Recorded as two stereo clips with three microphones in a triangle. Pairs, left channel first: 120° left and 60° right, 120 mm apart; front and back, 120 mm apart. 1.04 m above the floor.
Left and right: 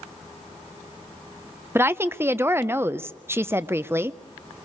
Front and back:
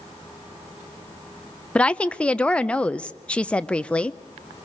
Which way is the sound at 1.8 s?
60° right.